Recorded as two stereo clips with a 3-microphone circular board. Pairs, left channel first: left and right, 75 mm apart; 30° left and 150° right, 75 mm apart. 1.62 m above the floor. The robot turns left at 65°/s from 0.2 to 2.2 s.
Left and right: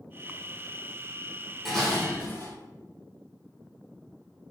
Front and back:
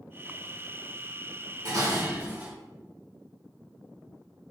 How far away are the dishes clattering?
About 1.7 m.